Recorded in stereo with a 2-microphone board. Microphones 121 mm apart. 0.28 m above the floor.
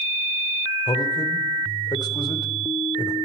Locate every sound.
0.9 s a man speaking: 35° left (ahead or behind), 1.1 m